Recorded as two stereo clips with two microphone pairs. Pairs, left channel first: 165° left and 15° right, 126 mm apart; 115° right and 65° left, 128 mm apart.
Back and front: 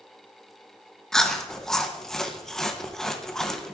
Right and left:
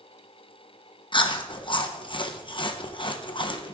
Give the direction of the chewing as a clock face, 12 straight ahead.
4 o'clock.